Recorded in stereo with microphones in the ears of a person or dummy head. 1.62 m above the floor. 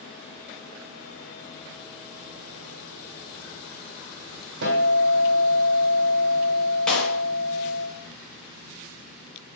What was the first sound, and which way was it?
A guitar, 70° right (ahead or behind).